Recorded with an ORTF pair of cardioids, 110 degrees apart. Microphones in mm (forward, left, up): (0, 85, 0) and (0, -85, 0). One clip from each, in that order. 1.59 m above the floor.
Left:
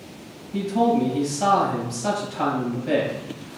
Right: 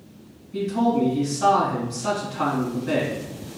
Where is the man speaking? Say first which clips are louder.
Left 2 dB; 25° left, 2.0 m.